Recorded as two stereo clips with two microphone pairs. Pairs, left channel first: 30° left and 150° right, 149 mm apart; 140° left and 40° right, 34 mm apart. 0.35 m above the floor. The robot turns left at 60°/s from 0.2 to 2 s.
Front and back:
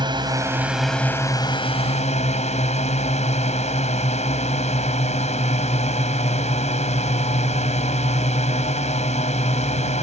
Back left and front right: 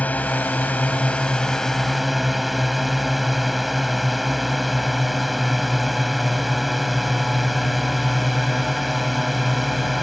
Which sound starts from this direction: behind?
A drone, at 0.0 s.